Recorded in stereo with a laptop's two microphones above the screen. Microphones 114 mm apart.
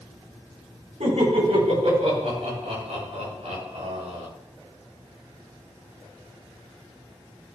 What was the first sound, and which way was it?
Laughter, 80° right.